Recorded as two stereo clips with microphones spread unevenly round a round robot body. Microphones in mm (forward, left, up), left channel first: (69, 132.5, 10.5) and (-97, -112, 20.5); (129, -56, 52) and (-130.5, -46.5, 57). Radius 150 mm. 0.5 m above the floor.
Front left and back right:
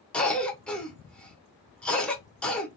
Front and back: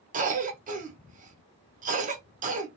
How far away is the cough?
About 0.8 m.